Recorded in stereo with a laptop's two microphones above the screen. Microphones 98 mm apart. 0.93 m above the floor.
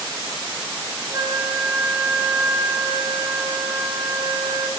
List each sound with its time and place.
1.1 s a flute: 50° right (ahead or behind), 1.0 m